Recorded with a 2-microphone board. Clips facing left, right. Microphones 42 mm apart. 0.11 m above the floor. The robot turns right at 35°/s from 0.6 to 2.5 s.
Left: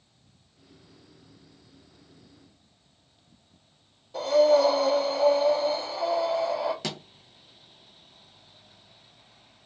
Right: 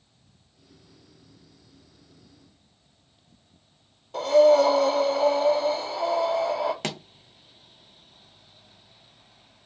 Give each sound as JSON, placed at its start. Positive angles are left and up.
{"t": 4.1, "sound": "breathing", "side_deg": -65, "distance_m": 0.9}
{"t": 6.8, "sound": "a pop", "side_deg": -50, "distance_m": 0.5}